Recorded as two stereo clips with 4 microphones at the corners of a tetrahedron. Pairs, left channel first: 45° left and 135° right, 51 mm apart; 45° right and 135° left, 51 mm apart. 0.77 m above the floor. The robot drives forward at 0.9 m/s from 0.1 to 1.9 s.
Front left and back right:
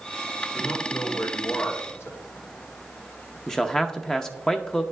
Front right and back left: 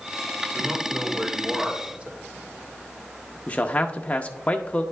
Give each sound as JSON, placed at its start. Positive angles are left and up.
{"t": 0.5, "sound": "a man speaking", "azimuth_deg": 40, "distance_m": 2.5}
{"t": 3.5, "sound": "a man speaking", "azimuth_deg": -25, "distance_m": 0.6}